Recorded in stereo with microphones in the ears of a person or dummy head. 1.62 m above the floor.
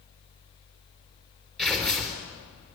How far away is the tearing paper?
About 4 m.